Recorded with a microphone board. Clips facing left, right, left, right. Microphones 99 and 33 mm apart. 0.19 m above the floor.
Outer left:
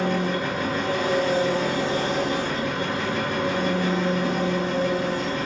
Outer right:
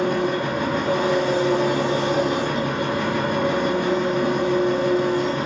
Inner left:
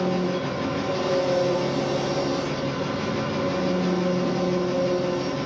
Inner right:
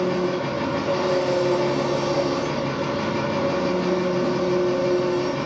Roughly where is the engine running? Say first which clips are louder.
Outer right 3 dB, inner right 2 dB; right.